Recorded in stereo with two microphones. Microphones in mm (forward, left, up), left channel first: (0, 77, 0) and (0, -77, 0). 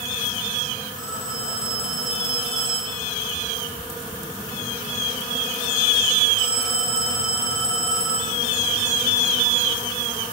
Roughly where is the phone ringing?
Centre.